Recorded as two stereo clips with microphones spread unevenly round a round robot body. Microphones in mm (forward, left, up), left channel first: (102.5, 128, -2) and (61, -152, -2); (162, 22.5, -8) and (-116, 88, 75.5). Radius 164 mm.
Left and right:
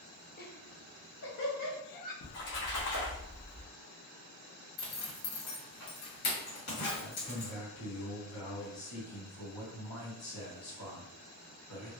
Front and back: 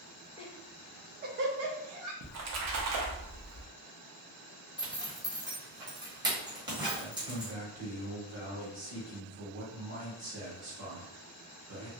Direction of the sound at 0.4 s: 35° left.